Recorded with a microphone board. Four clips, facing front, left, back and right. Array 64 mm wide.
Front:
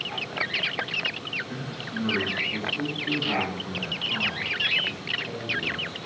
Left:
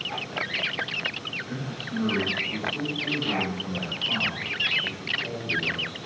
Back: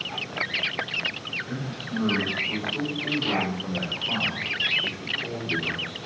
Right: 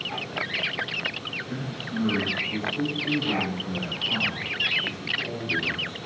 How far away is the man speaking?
About 5.5 m.